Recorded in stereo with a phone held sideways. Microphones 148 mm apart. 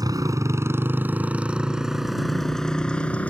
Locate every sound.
0.0 s a motorcycle: 25° right (ahead or behind); by 3.3 s 10° left (ahead or behind)